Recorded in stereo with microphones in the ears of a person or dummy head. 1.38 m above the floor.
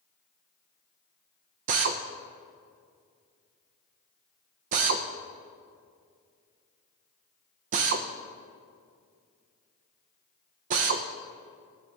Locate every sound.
1.7 s a drill: 40° right (ahead or behind), 0.7 m